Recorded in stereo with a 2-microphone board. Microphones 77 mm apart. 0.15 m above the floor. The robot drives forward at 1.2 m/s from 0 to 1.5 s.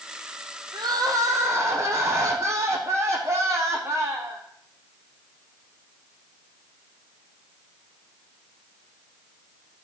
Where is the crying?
70° right (ahead or behind), 1.0 m; by 4.4 s 40° right (ahead or behind), 1.6 m.